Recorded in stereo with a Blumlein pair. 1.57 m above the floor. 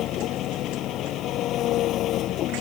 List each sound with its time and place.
0.0 s an engine running: 35° left